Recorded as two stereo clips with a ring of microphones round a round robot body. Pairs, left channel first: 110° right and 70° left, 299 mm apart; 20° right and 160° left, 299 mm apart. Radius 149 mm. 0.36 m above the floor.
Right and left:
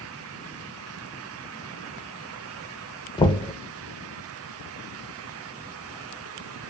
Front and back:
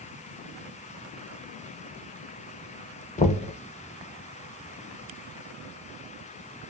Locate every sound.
3.2 s knocking: 55° right, 0.5 m